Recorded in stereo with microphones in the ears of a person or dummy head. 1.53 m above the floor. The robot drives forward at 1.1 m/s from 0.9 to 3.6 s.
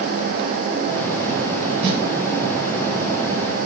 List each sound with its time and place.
1.8 s a snare drum: 80° right, 2.5 m